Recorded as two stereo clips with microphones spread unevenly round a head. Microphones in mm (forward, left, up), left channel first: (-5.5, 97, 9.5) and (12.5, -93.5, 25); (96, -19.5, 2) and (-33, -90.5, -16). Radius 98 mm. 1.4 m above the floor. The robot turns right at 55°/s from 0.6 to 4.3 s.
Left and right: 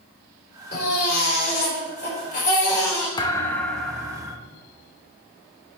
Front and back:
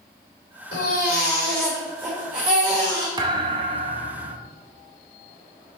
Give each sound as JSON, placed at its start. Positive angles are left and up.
{"t": 0.7, "sound": "a baby crying", "azimuth_deg": 55, "distance_m": 4.0}
{"t": 3.2, "sound": "a thud", "azimuth_deg": 155, "distance_m": 0.7}